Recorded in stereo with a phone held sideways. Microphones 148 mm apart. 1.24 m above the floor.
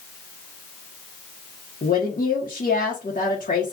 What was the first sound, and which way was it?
A woman speaking, 70° left (ahead or behind).